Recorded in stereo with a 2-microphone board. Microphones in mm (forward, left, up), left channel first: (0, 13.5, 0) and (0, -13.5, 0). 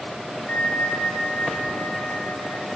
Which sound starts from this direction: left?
A bell, at 0.5 s.